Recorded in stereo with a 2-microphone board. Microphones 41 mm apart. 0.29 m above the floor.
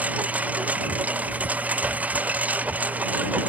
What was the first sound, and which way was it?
A lawn mower, 45° right (ahead or behind).